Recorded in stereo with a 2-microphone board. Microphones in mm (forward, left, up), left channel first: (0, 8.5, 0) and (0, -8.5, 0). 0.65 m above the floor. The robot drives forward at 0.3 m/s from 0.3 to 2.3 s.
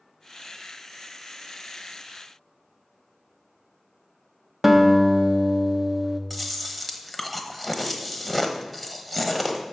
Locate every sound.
4.6 s a guitar: 20° right (ahead or behind), 0.9 m
6.3 s chewing: 5° left (ahead or behind), 1.0 m